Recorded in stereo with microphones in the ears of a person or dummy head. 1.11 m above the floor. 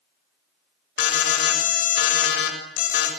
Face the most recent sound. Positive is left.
turn(degrees=70)  # may be behind; listen again after turning